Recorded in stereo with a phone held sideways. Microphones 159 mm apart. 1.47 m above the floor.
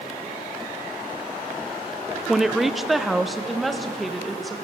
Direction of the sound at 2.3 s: 5° right (ahead or behind).